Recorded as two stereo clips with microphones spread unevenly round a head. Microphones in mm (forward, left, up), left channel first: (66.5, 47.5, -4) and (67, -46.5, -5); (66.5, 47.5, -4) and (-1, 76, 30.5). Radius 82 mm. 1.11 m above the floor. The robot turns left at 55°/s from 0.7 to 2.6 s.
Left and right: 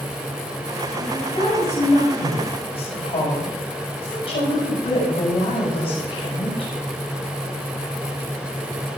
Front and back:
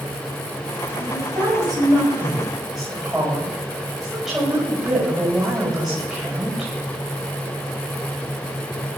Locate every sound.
1.0 s a woman speaking: 165° left, 8 m; by 6.7 s 75° left, 8 m